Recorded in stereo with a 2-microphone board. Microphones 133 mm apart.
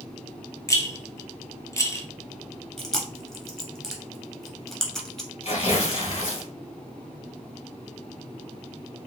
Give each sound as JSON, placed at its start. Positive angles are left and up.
{"t": 0.7, "sound": "a rattle", "side_deg": 25, "distance_m": 0.6}
{"t": 2.8, "sound": "chewing", "side_deg": 5, "distance_m": 1.1}
{"t": 5.4, "sound": "tearing paper", "side_deg": 55, "distance_m": 1.4}